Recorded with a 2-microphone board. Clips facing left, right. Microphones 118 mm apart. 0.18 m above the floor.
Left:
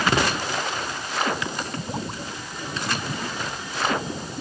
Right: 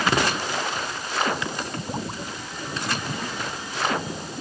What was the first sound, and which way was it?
Only background noise.